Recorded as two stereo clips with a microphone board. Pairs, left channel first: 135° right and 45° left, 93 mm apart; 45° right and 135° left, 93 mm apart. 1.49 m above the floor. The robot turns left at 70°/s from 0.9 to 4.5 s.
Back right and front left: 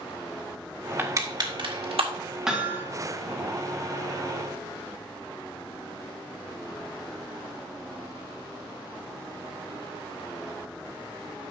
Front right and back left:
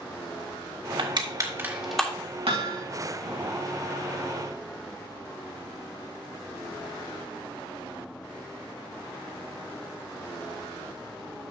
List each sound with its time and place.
1.0 s crushing: 115° left, 1.8 m; by 2.1 s 35° left, 1.8 m
2.5 s hammering: 130° left, 1.9 m; by 2.9 s 100° left, 1.9 m